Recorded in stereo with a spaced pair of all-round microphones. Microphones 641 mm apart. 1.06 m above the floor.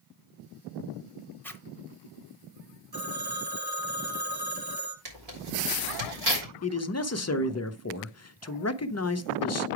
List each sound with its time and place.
1.4 s a zipper: 5° left (ahead or behind), 0.9 m
2.9 s a phone ringing: 40° right (ahead or behind), 1.7 m
5.0 s tearing paper: 75° right (ahead or behind), 3 m
6.6 s a man speaking: 25° left (ahead or behind), 0.5 m